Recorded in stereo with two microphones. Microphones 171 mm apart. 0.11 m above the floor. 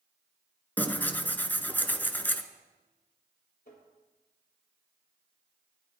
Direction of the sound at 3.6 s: 60° left (ahead or behind).